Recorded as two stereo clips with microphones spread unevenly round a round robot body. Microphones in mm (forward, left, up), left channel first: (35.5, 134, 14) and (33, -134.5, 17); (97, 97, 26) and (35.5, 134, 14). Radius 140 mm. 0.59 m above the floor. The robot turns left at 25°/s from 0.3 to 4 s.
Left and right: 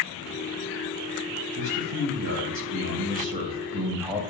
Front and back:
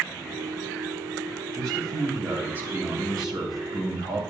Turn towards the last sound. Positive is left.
turn(degrees=-175)